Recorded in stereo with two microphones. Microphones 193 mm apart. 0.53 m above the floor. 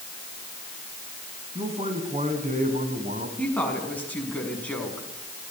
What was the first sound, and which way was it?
A man speaking, 30° right (ahead or behind).